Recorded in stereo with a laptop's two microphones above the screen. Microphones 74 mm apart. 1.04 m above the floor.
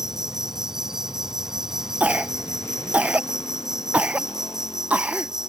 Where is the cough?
20° right (ahead or behind).